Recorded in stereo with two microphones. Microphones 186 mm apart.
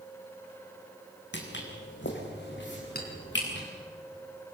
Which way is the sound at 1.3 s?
80° left.